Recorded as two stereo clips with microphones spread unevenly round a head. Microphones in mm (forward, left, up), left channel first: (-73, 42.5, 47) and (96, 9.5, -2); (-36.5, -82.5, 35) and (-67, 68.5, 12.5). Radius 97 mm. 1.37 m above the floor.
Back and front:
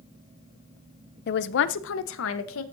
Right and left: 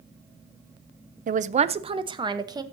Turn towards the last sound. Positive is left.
turn(degrees=170)